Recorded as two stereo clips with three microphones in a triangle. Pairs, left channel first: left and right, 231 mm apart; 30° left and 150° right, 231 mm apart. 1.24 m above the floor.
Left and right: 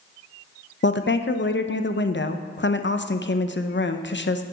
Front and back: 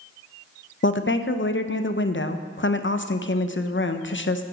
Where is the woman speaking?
60° left, 0.6 m.